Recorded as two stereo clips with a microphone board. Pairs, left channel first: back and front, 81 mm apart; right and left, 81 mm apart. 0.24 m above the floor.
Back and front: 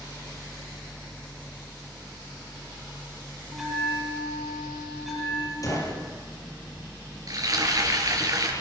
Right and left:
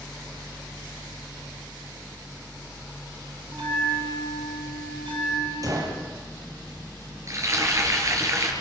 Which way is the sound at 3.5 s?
90° left.